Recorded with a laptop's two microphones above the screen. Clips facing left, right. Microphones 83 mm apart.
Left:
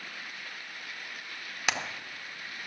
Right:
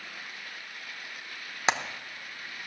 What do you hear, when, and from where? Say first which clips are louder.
1.7 s hammering: right 4 dB; 30° right (ahead or behind), 0.8 m